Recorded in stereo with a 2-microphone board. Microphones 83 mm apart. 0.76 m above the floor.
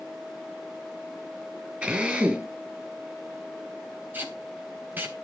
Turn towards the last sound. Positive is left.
turn(degrees=-25)  # may be behind; listen again after turning